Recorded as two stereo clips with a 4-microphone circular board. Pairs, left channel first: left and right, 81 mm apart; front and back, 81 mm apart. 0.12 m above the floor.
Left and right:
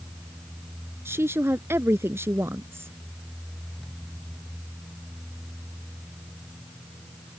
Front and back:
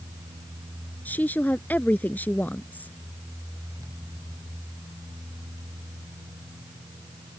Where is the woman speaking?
55° right.